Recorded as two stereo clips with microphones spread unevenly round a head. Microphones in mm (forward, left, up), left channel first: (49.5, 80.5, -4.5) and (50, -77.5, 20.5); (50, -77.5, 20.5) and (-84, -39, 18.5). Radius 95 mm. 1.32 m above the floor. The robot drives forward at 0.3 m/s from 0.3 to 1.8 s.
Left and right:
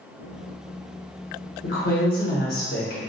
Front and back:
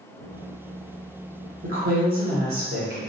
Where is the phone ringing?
No phone ringing in this recording.